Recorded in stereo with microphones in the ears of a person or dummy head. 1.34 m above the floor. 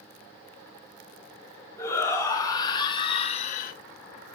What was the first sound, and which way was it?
A shout, 15° left (ahead or behind).